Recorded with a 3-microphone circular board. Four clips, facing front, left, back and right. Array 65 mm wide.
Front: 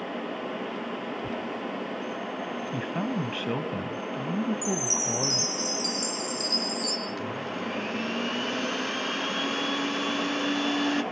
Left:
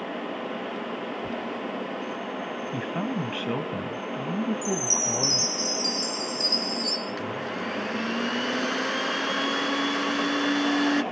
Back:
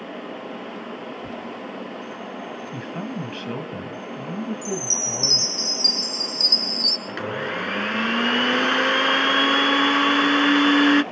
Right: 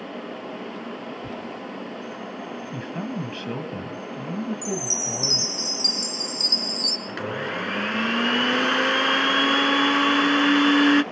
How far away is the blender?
About 0.9 m.